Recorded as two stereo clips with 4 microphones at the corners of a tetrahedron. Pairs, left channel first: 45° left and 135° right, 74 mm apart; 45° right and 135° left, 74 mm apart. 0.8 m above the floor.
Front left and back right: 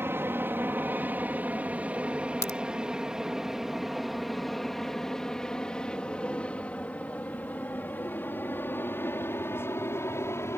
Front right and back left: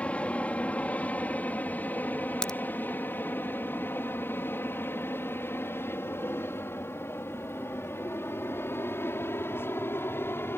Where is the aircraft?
105° right; by 10.6 s 5° left.